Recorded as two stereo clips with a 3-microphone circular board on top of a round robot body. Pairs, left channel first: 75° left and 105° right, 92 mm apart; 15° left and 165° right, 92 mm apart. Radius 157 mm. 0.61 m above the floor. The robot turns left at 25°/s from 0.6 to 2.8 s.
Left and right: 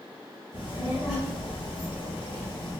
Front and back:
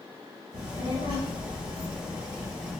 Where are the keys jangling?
No keys jangling in this recording.